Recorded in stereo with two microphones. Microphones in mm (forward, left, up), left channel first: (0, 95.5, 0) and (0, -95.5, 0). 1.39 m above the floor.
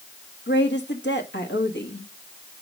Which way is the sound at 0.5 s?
80° left.